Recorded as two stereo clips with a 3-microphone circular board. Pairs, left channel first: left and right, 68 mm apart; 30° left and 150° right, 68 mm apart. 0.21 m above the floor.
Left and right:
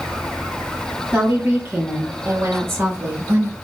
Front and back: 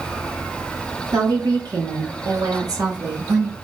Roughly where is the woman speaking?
Behind.